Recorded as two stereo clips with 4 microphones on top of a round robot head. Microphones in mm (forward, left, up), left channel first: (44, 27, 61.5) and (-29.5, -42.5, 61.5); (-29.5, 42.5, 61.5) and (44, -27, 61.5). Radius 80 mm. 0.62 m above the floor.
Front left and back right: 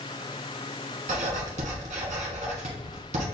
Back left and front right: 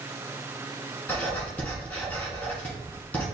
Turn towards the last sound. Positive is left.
turn(degrees=-145)